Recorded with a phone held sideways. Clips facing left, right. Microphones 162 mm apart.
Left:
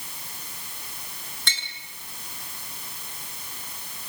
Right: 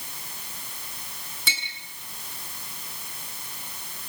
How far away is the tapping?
About 8 m.